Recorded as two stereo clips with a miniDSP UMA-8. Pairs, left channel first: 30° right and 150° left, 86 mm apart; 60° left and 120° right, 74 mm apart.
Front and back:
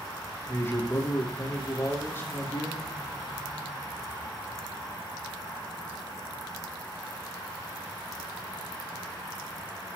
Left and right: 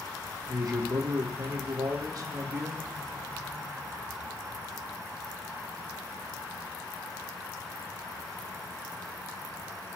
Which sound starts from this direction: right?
A man speaking, at 0.5 s.